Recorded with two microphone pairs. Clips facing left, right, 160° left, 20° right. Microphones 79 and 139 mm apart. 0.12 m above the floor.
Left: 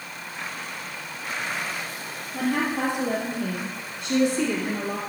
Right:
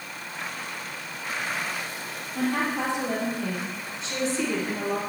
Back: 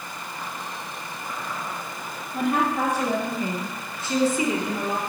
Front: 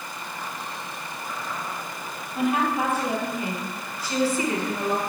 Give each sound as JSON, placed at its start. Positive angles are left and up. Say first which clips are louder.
{"t": 2.3, "sound": "a woman speaking", "louder": "left 1 dB, even", "azimuth_deg": 120, "distance_m": 3.0}